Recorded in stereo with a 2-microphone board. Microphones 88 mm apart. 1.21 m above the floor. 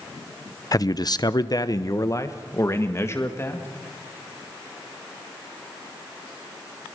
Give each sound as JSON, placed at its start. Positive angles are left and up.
{"t": 0.7, "sound": "a man speaking", "side_deg": 40, "distance_m": 0.7}